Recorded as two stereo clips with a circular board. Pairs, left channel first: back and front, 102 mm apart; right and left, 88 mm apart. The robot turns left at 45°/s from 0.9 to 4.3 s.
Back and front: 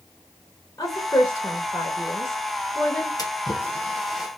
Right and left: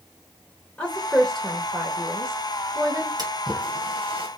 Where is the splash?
130° left, 1.4 m; by 4.3 s 80° left, 1.4 m.